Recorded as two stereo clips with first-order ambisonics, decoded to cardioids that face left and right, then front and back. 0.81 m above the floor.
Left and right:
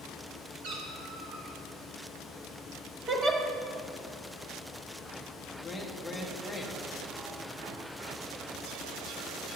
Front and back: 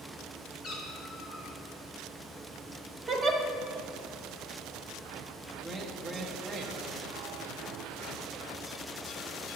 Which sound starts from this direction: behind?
A man speaking, at 5.6 s.